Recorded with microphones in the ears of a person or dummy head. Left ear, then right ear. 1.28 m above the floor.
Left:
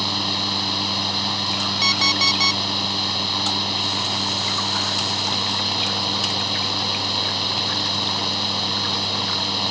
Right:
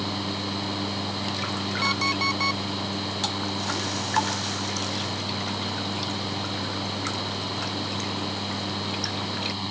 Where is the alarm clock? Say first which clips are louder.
Left 6 dB; 30° left (ahead or behind).